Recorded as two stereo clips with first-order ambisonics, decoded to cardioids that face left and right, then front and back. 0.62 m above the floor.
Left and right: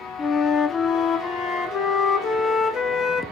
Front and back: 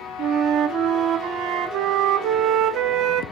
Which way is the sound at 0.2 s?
145° left.